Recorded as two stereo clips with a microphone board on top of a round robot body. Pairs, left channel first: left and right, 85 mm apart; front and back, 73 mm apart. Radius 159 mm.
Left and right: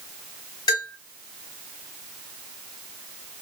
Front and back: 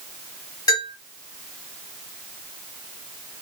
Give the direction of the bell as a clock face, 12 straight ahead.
11 o'clock.